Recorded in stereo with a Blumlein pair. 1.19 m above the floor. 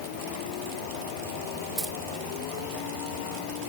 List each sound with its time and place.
1.8 s keys jangling: 10° right, 1.3 m